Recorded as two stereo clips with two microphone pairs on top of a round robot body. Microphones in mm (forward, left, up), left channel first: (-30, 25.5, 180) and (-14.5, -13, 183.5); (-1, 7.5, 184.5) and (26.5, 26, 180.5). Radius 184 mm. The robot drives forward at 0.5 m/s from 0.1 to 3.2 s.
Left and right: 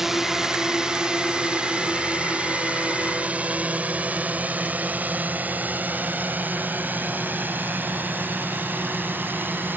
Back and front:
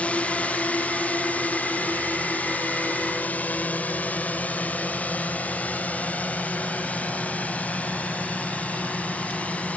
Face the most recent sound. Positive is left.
turn(degrees=-105)